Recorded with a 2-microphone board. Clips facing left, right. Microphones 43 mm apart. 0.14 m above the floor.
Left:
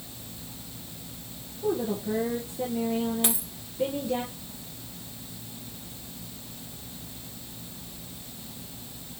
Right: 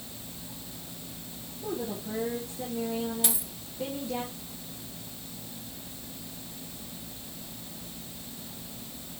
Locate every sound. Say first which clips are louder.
1.6 s a woman speaking: left 6 dB; 15° left (ahead or behind), 2.5 m
3.2 s a dropped coin: left 4 dB; 25° left (ahead or behind), 4.5 m